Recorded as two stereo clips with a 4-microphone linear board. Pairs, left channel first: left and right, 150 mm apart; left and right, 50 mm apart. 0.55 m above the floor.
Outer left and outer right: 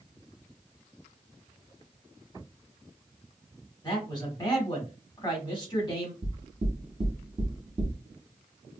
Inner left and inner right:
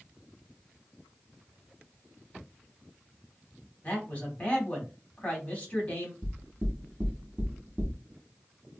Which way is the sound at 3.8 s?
30° left (ahead or behind).